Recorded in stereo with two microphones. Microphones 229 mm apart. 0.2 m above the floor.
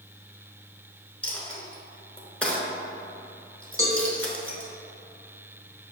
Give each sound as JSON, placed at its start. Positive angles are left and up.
{"t": 1.2, "sound": "a dropped coin", "side_deg": 5, "distance_m": 0.7}
{"t": 3.8, "sound": "a cowbell", "side_deg": -15, "distance_m": 0.5}